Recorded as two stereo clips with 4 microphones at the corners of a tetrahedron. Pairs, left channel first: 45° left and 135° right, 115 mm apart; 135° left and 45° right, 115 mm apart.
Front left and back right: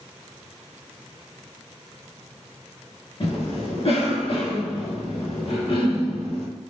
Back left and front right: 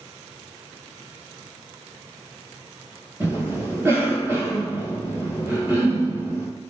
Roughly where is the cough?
Ahead.